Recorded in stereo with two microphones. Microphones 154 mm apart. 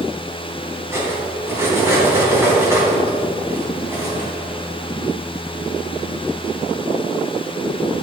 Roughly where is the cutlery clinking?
Centre.